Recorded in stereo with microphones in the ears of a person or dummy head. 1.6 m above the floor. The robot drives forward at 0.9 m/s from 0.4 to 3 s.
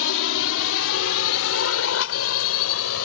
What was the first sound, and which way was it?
A drone, 85° left.